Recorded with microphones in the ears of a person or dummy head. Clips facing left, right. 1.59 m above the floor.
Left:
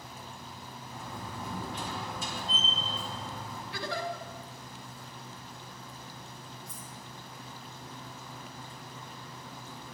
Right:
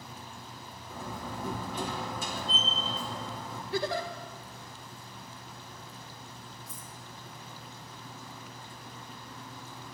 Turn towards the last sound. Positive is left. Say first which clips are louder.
# left 1 dB
turn(degrees=-5)  # may be behind; listen again after turning